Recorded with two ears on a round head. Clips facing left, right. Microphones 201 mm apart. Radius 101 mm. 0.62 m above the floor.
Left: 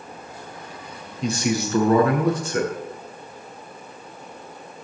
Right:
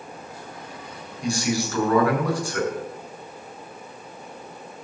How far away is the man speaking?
About 6 m.